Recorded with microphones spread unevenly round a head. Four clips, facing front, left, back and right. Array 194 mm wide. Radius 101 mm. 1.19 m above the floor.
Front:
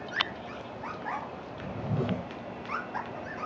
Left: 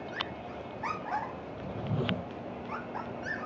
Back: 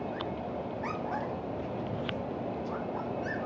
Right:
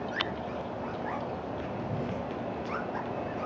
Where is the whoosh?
25° left.